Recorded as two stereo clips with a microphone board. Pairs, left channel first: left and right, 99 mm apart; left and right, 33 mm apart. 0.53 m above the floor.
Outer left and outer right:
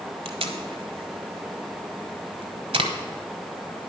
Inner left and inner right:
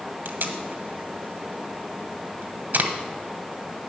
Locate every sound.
0.2 s tape being pulled: 75° right (ahead or behind), 1.0 m